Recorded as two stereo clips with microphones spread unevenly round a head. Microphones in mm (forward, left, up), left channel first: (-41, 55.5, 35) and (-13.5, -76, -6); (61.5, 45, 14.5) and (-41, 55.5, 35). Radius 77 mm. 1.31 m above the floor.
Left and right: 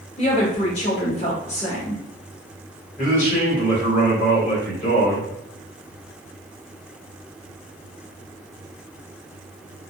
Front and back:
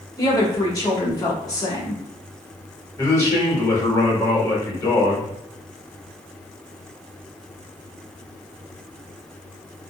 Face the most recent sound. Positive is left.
turn(degrees=55)